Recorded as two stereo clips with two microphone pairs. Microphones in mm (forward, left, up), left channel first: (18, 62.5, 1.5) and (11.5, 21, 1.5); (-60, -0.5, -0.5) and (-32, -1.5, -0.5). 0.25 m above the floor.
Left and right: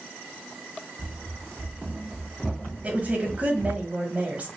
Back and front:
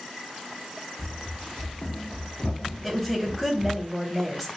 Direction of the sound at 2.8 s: 110° right.